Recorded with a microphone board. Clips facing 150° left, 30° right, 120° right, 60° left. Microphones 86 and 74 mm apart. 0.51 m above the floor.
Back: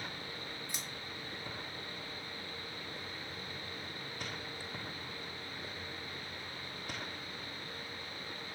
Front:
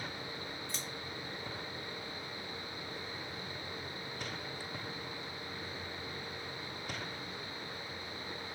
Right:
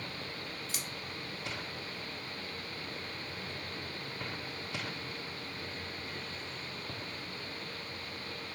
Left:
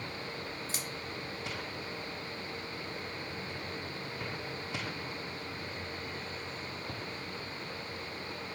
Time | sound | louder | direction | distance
0.7 | scissors | front 2 dB, left 2 dB | 85° left | 0.9 m